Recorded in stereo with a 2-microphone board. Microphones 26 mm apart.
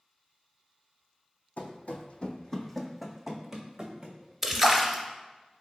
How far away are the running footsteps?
About 0.6 m.